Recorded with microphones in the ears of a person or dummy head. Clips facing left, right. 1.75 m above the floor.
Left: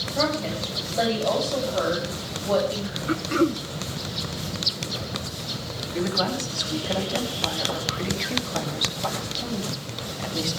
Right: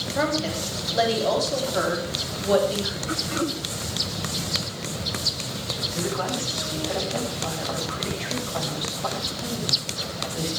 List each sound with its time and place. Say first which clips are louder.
0.1 s a woman speaking: even; 10° right (ahead or behind), 8 m; by 3.0 s 15° right (ahead or behind), 9.5 m
3.1 s throat clearing: left 8 dB; 55° left (ahead or behind), 1.3 m
5.9 s a woman speaking: left 2 dB; 35° left (ahead or behind), 8.5 m